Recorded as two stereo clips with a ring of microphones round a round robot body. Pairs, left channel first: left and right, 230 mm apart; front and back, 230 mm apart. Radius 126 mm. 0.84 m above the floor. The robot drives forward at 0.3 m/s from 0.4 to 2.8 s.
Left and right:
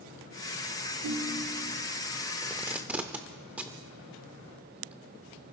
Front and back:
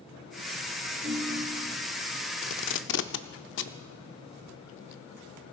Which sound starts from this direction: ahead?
Tape being pulled, at 2.4 s.